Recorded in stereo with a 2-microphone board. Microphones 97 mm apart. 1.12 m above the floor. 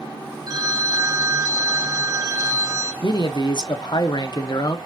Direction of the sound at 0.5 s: 40° right (ahead or behind).